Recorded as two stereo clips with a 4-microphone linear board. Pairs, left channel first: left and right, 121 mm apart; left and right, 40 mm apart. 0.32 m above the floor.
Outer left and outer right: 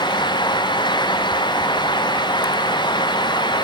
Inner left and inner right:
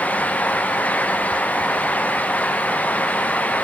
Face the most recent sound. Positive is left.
No sound to turn to.